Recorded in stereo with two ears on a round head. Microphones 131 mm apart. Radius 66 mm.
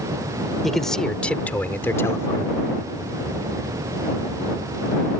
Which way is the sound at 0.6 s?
Centre (ahead or behind).